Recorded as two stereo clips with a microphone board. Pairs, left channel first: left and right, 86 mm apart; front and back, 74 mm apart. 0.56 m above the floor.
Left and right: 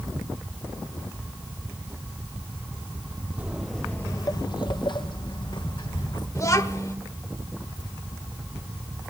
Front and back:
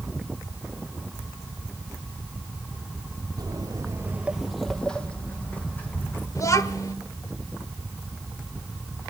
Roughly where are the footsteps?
Behind.